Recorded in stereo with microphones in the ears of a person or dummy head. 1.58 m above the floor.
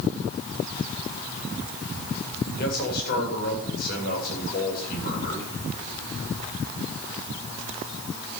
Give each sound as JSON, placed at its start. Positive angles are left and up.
{"t": 2.6, "sound": "a man speaking", "side_deg": 50, "distance_m": 8.0}